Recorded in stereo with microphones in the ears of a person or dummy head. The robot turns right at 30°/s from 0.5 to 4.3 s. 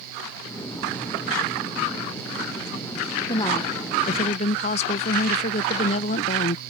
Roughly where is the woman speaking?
Ahead left.